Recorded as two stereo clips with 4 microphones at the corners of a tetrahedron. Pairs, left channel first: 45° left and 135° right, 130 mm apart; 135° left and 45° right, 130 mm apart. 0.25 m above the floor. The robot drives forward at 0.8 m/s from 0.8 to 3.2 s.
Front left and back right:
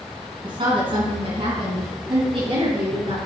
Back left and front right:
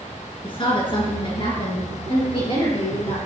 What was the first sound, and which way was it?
A woman speaking, straight behind.